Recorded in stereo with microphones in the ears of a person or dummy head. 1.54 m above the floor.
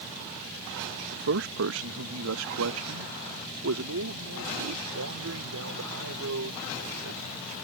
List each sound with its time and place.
1.1 s a man speaking: 65° right (ahead or behind); by 7.5 s 85° right